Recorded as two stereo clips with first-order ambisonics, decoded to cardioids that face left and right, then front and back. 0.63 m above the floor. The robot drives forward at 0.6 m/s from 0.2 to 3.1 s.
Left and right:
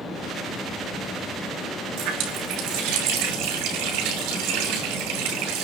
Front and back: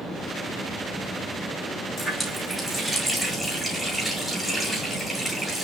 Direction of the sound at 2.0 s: 85° right.